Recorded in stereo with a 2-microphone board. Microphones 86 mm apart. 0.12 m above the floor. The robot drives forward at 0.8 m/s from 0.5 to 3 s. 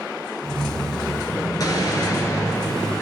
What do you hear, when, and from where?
1.6 s an explosion: 50° left (ahead or behind), 1.6 m; by 3.0 s 35° left (ahead or behind), 2 m